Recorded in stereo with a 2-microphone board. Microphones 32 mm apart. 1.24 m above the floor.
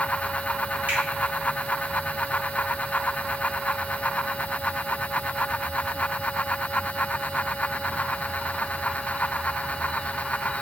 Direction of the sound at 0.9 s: 60° right (ahead or behind).